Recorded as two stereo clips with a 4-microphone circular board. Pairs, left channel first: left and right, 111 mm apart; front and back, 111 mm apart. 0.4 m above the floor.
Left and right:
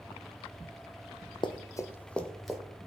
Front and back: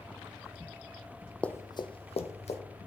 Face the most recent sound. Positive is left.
turn(degrees=0)